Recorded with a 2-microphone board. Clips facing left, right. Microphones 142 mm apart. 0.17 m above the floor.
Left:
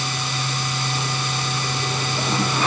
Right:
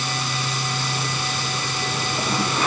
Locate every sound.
Only background noise.